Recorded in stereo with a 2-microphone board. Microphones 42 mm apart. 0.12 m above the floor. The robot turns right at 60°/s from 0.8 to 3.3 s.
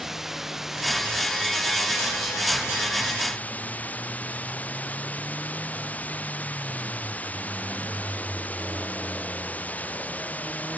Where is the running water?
5° right; by 10.8 s 145° left.